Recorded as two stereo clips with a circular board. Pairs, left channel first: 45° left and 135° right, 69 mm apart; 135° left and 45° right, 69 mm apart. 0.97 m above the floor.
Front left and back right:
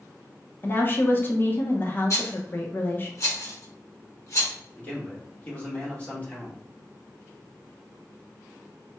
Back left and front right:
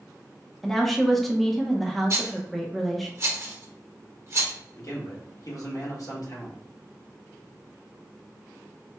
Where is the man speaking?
110° left, 1.3 m.